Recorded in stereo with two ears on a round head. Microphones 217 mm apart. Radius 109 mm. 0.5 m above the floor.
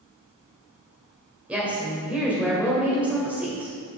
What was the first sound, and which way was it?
A woman speaking, 5° right (ahead or behind).